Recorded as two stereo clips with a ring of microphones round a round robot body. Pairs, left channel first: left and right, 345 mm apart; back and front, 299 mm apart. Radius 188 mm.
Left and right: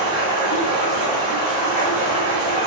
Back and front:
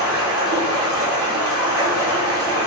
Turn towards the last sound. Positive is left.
turn(degrees=30)